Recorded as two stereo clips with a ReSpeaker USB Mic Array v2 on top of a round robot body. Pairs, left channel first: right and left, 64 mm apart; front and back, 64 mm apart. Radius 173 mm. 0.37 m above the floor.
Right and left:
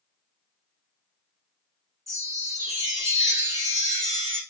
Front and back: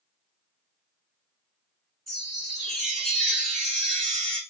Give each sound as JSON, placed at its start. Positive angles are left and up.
{"t": 2.1, "sound": "a chime", "azimuth_deg": 90, "distance_m": 4.0}